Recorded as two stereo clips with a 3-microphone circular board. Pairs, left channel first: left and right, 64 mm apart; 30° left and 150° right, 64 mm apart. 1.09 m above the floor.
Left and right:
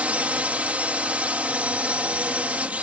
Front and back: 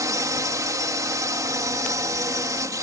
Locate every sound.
0.0 s a drone: 155° right